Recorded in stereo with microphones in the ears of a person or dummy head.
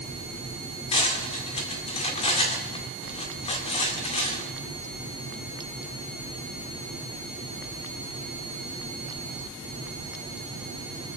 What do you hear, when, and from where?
0.9 s cutlery clinking: 30° left (ahead or behind), 1.9 m